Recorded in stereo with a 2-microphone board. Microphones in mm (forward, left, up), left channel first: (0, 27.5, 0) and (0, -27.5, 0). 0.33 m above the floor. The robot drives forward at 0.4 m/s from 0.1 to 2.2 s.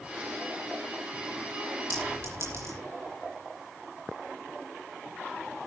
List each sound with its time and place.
1.9 s a clink: 50° right (ahead or behind), 8.5 m